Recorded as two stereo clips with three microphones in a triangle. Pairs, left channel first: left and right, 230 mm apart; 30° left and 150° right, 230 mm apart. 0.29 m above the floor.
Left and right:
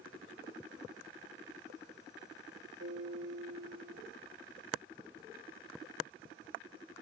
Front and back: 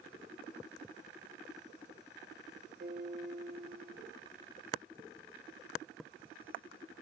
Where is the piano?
100° right, 4.5 m.